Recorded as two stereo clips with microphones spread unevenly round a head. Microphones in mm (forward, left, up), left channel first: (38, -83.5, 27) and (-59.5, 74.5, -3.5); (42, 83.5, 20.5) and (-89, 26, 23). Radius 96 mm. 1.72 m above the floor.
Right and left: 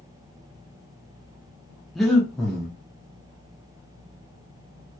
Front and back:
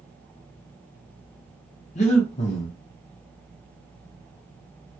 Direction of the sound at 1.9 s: 20° left.